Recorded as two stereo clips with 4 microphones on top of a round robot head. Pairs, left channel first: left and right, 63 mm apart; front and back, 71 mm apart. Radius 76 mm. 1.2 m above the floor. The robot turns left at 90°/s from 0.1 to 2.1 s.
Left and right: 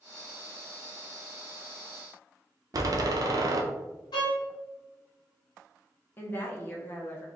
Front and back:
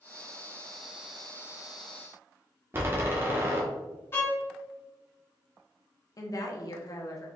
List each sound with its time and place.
2.7 s a door slam: 120° right, 0.7 m
4.1 s a violin: 55° left, 1.1 m
6.2 s a woman speaking: 30° left, 1.1 m